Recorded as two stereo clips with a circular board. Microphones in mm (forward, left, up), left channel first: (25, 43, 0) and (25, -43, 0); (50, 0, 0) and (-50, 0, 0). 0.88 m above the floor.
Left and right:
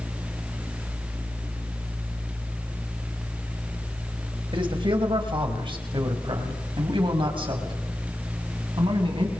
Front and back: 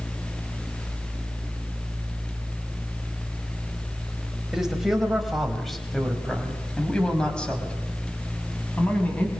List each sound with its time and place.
4.5 s a man speaking: 95° right, 4.5 m; by 9.3 s 75° right, 7 m